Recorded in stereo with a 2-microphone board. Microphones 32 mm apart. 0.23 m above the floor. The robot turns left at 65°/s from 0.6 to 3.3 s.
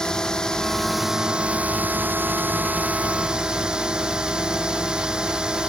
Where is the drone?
20° left; by 5.7 s 155° right.